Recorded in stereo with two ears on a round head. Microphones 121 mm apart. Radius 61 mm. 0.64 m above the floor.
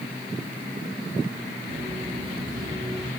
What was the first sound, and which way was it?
Footsteps, 45° right (ahead or behind).